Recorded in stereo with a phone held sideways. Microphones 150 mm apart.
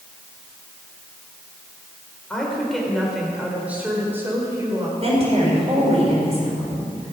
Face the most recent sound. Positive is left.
turn(degrees=-45)  # may be behind; listen again after turning